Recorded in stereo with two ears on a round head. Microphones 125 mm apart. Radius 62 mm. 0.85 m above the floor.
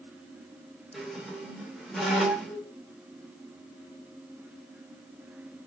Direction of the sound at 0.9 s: Centre (ahead or behind).